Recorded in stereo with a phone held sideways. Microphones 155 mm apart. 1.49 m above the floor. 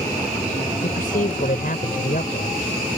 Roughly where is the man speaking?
Left.